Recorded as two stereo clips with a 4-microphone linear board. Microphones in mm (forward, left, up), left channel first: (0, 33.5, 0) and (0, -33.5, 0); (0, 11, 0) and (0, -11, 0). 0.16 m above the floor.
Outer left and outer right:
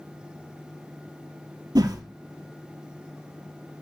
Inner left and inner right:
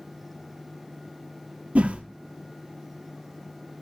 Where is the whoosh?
75° right (ahead or behind), 1.2 m.